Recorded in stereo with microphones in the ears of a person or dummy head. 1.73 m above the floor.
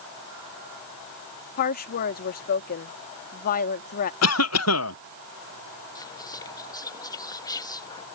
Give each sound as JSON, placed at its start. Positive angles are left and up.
{"t": 1.6, "sound": "a woman speaking", "side_deg": 55}
{"t": 4.2, "sound": "a cough", "side_deg": 80}
{"t": 6.0, "sound": "whispering", "side_deg": 25}